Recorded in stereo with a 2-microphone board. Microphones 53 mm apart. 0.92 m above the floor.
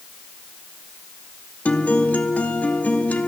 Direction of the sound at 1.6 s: 30° left (ahead or behind).